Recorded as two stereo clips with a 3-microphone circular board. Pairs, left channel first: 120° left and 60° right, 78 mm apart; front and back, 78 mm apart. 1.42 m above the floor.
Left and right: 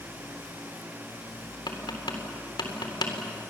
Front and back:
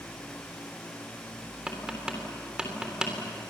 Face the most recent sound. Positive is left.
turn(degrees=100)